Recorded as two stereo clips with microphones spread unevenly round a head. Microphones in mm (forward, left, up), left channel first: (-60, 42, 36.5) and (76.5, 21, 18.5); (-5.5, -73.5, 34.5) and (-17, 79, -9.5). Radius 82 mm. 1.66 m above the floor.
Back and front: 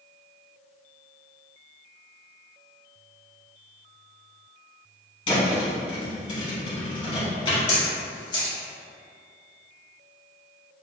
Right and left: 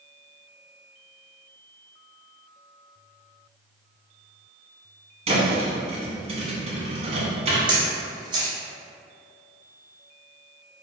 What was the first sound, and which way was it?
A thud, 145° left.